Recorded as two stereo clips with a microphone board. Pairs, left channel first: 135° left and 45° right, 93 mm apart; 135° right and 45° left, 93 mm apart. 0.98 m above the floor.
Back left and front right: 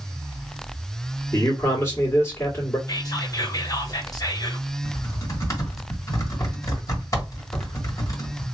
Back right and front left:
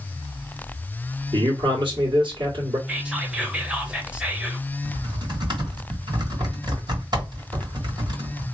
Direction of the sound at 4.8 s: 80° left.